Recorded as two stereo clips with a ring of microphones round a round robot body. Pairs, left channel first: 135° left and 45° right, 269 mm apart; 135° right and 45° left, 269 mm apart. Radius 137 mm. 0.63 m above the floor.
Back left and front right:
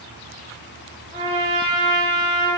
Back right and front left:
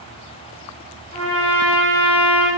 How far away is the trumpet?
About 1.1 m.